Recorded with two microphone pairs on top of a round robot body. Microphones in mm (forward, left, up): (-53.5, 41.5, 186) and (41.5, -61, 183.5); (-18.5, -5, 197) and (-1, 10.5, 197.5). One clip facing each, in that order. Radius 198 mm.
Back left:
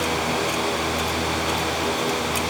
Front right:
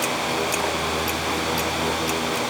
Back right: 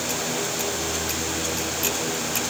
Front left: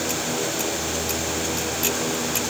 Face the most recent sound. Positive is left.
No sound to turn to.